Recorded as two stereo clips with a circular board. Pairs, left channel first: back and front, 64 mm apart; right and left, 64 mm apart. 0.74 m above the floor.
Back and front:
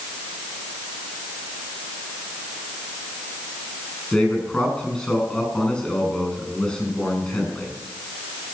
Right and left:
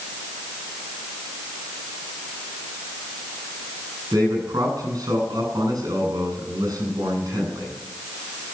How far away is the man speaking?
About 9 m.